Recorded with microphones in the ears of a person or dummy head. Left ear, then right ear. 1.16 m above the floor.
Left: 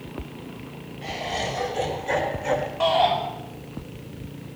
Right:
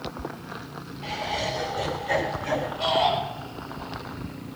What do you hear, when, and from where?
1.0 s laughter: 70° left (ahead or behind), 5.5 m; by 2.7 s 55° left (ahead or behind), 3.5 m
2.8 s a shout: 55° left (ahead or behind), 7 m